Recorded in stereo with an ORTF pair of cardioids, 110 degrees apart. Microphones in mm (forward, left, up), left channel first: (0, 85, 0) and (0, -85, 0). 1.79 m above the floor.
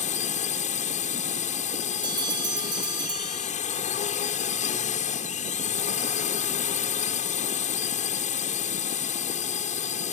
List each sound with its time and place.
0.0 s a drone: 45° left
2.0 s a bell: 25° right